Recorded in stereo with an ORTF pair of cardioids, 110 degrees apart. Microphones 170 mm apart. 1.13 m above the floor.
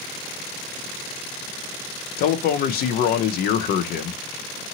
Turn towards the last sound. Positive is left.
turn(degrees=65)